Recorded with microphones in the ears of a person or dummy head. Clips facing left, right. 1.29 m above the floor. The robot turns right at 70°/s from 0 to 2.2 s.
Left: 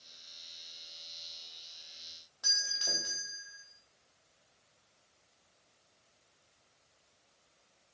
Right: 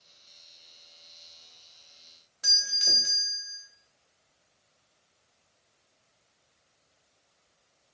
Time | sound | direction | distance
2.4 | a doorbell | 20° right (ahead or behind) | 1.5 m